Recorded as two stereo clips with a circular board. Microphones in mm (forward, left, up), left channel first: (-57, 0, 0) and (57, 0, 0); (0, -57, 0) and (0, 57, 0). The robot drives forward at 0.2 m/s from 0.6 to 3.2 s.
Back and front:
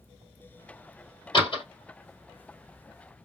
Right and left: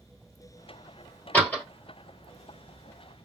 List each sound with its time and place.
1.3 s a door slam: 165° right, 1.8 m